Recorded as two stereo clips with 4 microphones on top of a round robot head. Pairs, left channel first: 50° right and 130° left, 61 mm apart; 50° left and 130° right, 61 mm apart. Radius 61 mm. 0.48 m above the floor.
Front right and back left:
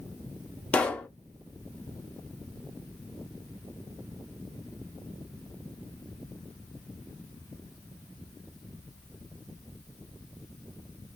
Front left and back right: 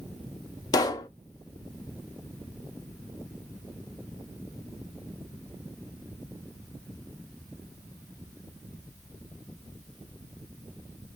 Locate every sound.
0.7 s a pop: 25° left, 0.5 m